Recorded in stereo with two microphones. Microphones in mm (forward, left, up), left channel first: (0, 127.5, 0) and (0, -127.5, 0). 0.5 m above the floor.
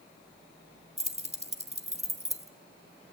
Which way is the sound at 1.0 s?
25° right (ahead or behind).